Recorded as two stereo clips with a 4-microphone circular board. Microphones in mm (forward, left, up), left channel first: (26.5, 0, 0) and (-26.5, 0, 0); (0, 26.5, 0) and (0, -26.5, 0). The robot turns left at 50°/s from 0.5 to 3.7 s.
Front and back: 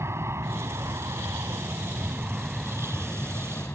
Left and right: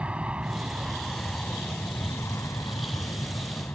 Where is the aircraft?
155° right; by 3.8 s 45° left.